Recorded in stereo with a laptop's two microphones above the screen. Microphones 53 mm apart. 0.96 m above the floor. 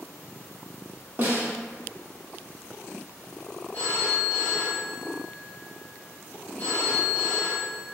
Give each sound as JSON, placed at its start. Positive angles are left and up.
{"t": 1.2, "sound": "a snare drum", "side_deg": -40, "distance_m": 0.7}
{"t": 3.7, "sound": "a phone ringing", "side_deg": 30, "distance_m": 1.4}